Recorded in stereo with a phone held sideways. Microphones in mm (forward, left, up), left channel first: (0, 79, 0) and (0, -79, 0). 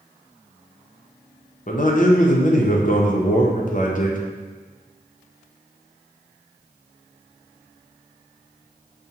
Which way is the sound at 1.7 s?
55° left (ahead or behind).